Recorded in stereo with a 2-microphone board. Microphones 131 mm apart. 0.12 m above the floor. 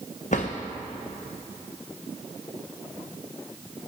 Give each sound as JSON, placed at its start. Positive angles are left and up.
{"t": 0.3, "sound": "a drawer", "side_deg": 70, "distance_m": 1.8}